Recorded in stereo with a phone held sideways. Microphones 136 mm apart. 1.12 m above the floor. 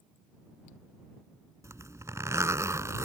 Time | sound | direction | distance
1.6 | a zipper | 20° right (ahead or behind) | ?